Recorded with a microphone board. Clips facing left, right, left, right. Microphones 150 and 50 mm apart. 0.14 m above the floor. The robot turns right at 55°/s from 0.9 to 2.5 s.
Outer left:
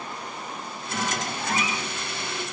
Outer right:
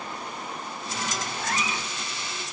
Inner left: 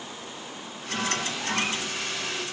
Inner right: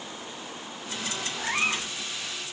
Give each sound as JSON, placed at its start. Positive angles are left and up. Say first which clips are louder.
{"t": 1.4, "sound": "a cat meowing", "louder": "outer left 1 dB, inner right 1 dB", "side_deg": -60, "distance_m": 0.6}